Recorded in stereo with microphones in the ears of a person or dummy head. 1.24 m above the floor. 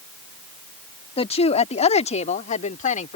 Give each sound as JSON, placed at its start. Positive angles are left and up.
{"t": 1.2, "sound": "a woman speaking", "side_deg": 30}